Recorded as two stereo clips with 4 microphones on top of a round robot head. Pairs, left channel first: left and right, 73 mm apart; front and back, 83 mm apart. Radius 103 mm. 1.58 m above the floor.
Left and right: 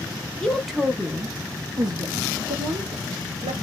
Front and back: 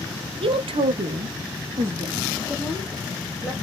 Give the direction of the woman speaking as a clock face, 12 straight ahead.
6 o'clock.